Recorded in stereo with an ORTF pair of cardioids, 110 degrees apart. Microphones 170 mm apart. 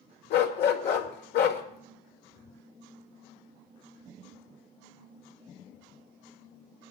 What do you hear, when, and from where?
0.3 s a dog barking: 70° left, 1.8 m